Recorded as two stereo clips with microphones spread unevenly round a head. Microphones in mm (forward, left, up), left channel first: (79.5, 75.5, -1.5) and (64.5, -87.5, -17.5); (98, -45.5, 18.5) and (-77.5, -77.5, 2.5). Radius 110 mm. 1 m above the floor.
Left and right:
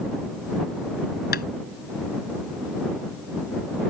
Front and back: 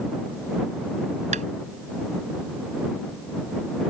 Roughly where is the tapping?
Behind left.